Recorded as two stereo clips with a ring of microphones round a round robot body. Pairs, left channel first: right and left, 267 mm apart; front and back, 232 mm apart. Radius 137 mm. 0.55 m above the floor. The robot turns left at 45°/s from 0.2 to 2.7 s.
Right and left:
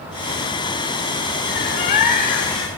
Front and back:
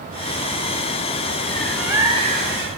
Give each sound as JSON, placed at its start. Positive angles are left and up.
{"t": 1.5, "sound": "a bird", "azimuth_deg": -80, "distance_m": 1.8}